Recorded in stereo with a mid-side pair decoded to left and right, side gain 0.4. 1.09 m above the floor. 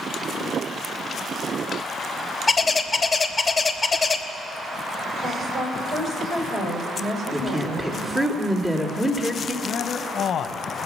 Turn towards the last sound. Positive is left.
turn(degrees=65)